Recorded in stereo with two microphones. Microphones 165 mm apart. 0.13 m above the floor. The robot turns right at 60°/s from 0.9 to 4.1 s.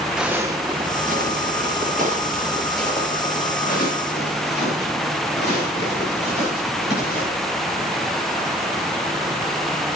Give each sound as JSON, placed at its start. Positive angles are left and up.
{"t": 0.2, "sound": "footsteps", "side_deg": -5, "distance_m": 1.2}